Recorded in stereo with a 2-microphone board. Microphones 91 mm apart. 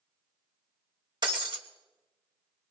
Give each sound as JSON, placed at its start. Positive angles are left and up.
{"t": 1.2, "sound": "breaking glass", "side_deg": -50, "distance_m": 1.1}